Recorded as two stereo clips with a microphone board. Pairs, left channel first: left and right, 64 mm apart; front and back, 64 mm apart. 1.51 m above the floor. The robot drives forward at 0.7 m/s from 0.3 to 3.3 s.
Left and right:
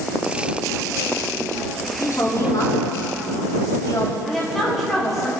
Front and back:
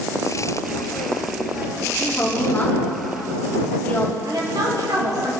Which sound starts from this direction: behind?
A woman speaking, at 4.2 s.